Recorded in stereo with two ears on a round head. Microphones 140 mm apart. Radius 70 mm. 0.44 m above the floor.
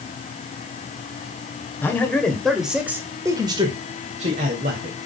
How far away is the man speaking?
About 2 m.